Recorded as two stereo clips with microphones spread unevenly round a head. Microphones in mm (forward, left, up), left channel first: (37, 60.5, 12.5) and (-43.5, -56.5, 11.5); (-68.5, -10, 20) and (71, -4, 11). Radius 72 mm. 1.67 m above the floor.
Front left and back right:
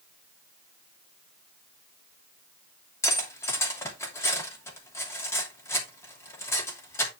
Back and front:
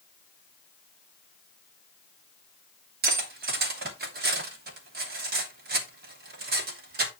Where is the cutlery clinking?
15° right, 2.5 m.